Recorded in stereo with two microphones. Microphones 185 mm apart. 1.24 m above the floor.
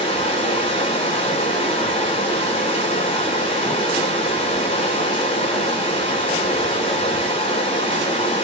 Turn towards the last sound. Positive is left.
turn(degrees=30)  # may be behind; listen again after turning